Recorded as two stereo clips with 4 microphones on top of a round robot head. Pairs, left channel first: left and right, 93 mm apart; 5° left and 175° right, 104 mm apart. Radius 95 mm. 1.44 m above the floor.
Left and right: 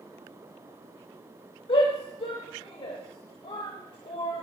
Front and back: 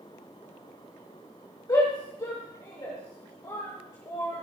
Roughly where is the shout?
Ahead left.